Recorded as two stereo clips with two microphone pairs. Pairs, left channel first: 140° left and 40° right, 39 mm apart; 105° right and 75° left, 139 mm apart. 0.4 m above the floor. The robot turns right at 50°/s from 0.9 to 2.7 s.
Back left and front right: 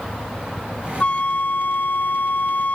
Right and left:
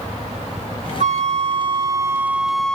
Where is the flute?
90° left; by 2.8 s 175° left.